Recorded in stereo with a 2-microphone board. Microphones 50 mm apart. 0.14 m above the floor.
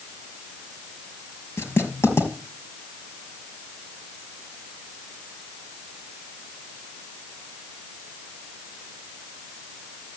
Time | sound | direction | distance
1.6 | writing | 55° left (ahead or behind) | 4 m